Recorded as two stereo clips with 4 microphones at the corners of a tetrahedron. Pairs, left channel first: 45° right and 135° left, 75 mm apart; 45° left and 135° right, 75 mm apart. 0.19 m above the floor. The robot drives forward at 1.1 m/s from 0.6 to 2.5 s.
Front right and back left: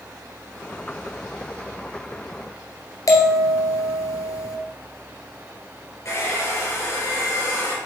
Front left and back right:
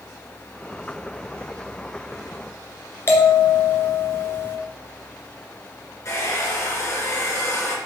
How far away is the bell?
About 2 m.